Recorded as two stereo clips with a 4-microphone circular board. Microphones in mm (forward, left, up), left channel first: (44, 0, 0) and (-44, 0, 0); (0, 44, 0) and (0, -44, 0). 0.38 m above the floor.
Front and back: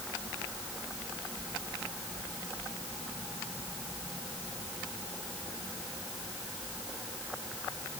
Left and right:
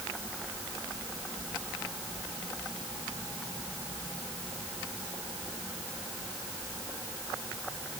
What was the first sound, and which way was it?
Only background noise.